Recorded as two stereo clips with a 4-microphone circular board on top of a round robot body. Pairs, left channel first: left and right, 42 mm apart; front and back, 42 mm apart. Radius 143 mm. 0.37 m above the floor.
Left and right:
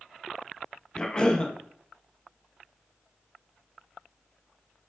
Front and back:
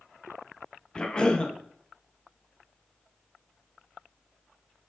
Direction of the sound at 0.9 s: 40° left.